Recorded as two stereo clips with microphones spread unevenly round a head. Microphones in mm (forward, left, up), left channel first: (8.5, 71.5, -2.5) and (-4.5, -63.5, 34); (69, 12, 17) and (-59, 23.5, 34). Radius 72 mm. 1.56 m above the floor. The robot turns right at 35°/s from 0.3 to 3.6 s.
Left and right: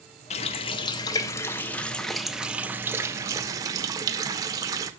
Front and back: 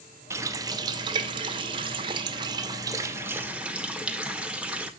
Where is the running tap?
130° left, 0.6 m; by 4.9 s 115° right, 0.6 m.